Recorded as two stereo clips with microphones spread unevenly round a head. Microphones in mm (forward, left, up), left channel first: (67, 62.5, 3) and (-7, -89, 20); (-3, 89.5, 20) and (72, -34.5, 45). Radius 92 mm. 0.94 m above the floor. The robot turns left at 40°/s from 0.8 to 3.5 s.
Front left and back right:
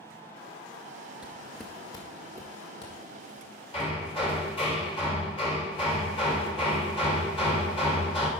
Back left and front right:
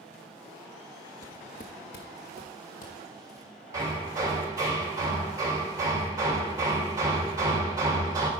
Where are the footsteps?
170° right, 0.9 m; by 4.4 s 65° left, 4 m.